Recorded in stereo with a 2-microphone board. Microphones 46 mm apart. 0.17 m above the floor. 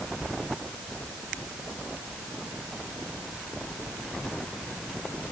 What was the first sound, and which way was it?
Only background noise.